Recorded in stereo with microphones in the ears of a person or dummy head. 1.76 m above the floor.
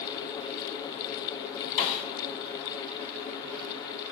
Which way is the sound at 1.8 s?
40° left (ahead or behind).